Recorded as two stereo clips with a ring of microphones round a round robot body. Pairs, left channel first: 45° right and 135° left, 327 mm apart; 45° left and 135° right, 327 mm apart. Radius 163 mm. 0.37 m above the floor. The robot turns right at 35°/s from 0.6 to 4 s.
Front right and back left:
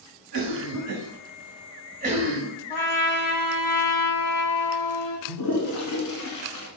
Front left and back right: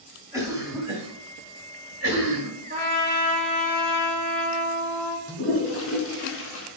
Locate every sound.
0.3 s a cough: 145° left, 1.8 m; by 2.5 s 145° right, 1.8 m
2.7 s a trumpet: 70° right, 1.2 m; by 5.2 s 25° right, 1.2 m
5.3 s a toilet flushing: 10° right, 1.1 m